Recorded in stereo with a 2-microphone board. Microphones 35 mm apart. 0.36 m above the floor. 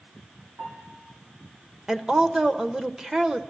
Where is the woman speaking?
15° right (ahead or behind), 0.9 m.